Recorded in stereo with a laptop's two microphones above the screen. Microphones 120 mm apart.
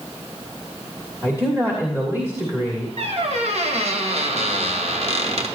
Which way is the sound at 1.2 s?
20° right (ahead or behind).